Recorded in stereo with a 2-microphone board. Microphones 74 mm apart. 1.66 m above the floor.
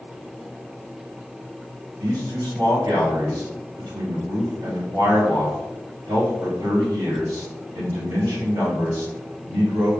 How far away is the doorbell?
No doorbell in this recording.